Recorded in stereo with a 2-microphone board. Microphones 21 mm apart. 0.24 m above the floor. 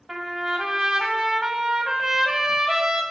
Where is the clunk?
I don't hear a clunk.